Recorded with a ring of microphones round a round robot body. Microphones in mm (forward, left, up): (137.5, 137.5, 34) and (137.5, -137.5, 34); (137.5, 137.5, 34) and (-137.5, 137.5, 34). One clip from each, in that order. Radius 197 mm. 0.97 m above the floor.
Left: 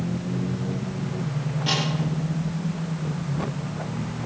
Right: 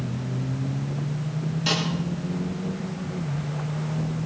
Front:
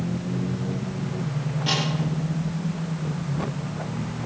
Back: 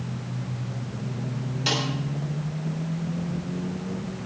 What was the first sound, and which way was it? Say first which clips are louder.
A snare drum: even, even; 150° right.